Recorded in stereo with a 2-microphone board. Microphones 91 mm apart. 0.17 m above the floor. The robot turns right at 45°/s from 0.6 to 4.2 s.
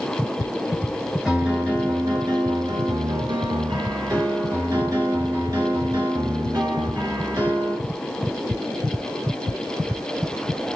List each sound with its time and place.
1.2 s a piano: 175° right, 2.5 m; by 7.8 s 45° right, 2.5 m